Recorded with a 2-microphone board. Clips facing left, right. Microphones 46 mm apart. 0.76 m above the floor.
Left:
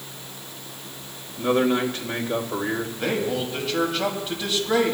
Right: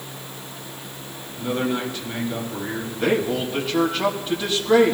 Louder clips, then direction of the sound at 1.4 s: Left 4 dB; 50° left (ahead or behind).